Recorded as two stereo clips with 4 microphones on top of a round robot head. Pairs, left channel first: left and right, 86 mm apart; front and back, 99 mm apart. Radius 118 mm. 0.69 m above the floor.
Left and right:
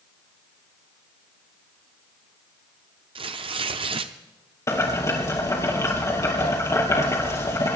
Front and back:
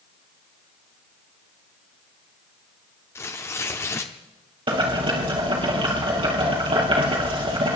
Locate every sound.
3.1 s tearing paper: 70° right, 0.8 m
4.7 s boiling: 145° left, 4 m